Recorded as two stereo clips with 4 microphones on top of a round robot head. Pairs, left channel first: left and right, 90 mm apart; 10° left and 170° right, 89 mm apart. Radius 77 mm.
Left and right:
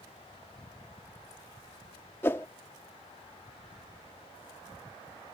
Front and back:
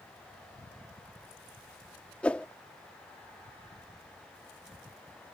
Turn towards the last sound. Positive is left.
turn(degrees=65)